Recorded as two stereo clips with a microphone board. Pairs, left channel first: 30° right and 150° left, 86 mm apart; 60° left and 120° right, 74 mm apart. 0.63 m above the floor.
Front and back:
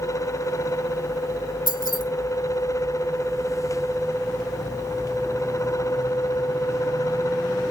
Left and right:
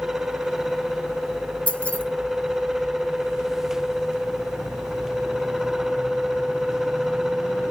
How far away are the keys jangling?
About 1.9 m.